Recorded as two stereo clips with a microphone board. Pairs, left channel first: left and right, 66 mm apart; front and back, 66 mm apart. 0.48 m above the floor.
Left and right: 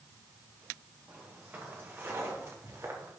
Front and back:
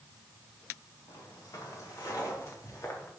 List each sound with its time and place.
1.1 s footsteps: 20° right, 4 m; by 3.1 s 45° right, 4.5 m